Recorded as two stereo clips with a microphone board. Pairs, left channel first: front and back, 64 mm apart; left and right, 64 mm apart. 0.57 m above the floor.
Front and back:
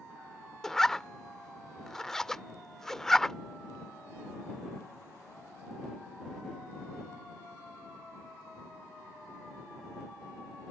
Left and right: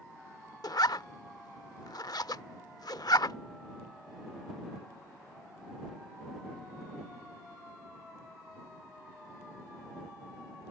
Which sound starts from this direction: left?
A zipper, at 0.6 s.